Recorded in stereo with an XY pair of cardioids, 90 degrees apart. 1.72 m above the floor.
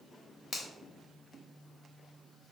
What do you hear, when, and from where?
0.5 s a finger snap: 50° left, 1.0 m